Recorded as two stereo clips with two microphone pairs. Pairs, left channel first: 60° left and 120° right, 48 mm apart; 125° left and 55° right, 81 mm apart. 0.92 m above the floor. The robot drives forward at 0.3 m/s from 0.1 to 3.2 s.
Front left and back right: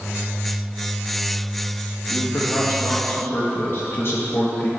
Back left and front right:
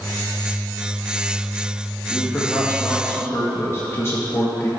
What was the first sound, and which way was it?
A man speaking, 55° left.